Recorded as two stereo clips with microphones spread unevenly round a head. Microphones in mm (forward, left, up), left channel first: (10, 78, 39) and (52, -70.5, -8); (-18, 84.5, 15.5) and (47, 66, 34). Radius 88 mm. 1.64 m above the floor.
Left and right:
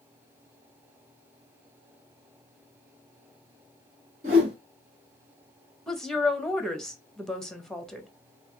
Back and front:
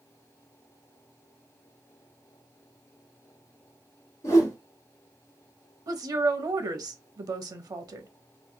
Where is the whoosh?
130° right, 2 m.